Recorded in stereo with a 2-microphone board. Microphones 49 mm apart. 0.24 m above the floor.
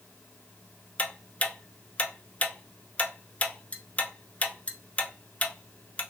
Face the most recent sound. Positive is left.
turn(degrees=30)  # may be behind; listen again after turning